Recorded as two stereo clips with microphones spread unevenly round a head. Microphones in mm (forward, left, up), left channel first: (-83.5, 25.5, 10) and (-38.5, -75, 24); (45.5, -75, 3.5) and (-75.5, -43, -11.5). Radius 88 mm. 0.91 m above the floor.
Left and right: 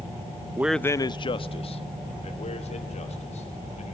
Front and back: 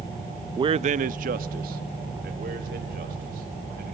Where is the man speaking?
140° right, 0.5 m; by 3.9 s 130° left, 4 m.